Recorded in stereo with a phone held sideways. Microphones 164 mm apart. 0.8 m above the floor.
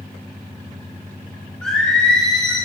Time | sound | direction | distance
1.6 | singing | 5° left (ahead or behind) | 2.5 m